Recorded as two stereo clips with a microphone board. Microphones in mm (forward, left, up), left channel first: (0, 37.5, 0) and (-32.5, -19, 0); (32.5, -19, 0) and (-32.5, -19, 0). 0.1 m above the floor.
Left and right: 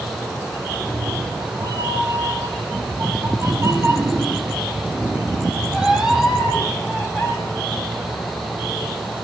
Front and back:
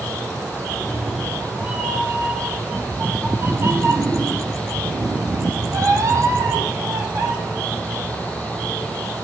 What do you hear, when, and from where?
0.8 s a cat meowing: 100° right, 2.5 m; by 7.3 s 145° left, 2.5 m